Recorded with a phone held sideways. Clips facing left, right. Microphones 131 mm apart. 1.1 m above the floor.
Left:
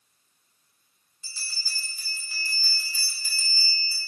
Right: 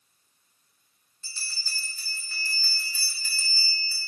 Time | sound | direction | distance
1.2 | a bell | 10° left (ahead or behind) | 1.0 m